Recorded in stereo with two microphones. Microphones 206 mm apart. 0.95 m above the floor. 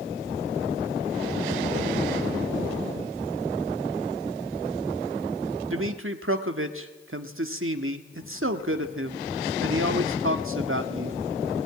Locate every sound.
5.7 s a man speaking: 85° right, 1.7 m